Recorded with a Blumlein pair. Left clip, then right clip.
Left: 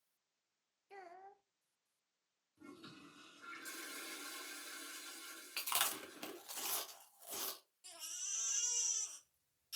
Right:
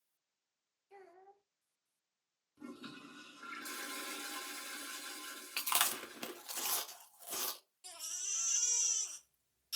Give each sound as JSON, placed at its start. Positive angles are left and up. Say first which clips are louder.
{"t": 0.9, "sound": "a child speaking", "louder": "left 3 dB", "azimuth_deg": 25, "distance_m": 0.6}
{"t": 2.6, "sound": "a toilet flushing", "louder": "right 6 dB", "azimuth_deg": -20, "distance_m": 1.1}
{"t": 5.6, "sound": "chewing", "louder": "right 4 dB", "azimuth_deg": -15, "distance_m": 0.7}
{"t": 7.8, "sound": "a baby crying", "louder": "right 4 dB", "azimuth_deg": -20, "distance_m": 1.2}